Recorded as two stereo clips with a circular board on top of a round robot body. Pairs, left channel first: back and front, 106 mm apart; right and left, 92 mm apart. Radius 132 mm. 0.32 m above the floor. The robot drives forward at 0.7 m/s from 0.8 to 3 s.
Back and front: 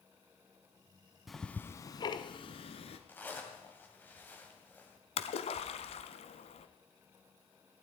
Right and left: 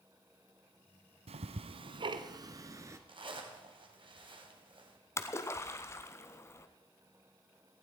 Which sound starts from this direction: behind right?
A splash, at 5.2 s.